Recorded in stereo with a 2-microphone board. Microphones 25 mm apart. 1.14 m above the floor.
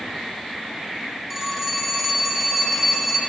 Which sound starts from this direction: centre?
A phone ringing, at 1.3 s.